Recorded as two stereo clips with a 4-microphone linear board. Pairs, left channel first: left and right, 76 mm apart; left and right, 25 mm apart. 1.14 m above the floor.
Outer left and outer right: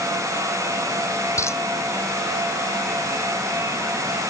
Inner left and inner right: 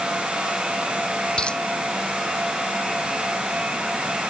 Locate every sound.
1.4 s a dropped coin: 40° left (ahead or behind)